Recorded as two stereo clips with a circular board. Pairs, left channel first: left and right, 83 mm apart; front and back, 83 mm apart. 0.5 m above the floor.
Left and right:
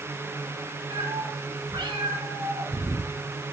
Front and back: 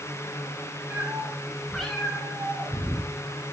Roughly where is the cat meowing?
Right.